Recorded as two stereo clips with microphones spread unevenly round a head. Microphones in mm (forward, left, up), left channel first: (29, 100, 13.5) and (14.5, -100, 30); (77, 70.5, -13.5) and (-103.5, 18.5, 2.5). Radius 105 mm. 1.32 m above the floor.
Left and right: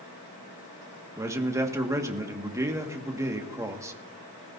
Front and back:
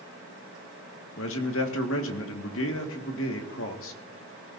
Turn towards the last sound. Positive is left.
turn(degrees=-20)